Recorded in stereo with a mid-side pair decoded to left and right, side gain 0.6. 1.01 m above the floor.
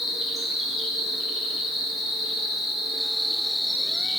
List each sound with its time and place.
0.0 s an insect: 5° left, 1.0 m